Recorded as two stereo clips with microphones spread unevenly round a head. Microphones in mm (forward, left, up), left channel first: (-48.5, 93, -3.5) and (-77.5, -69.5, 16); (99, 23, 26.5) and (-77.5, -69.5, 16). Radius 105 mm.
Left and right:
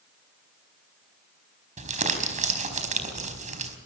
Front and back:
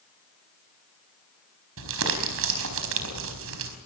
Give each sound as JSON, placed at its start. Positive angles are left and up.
{"t": 1.8, "sound": "crumpling", "azimuth_deg": -140, "distance_m": 4.5}